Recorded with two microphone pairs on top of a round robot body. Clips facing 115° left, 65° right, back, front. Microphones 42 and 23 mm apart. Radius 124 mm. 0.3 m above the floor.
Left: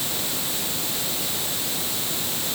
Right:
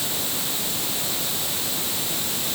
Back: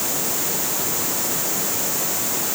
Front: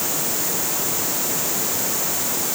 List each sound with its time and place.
Only background noise.